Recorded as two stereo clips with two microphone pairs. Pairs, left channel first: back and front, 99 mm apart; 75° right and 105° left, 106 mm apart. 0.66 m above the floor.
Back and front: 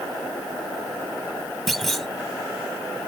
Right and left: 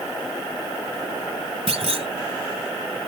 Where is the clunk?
90° left.